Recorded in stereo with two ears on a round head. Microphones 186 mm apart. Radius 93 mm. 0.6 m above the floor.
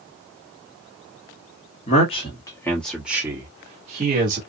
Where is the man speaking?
35° left (ahead or behind), 1.3 m; by 4.4 s 45° right (ahead or behind), 1.4 m.